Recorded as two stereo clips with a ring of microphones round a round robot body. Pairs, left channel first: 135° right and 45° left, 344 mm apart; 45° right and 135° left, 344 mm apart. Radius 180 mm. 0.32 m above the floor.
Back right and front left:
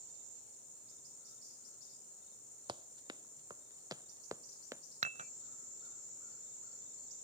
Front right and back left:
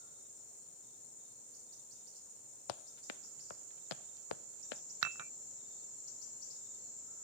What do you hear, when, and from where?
2.7 s running footsteps: 35° right
5.0 s dishes clattering: 115° left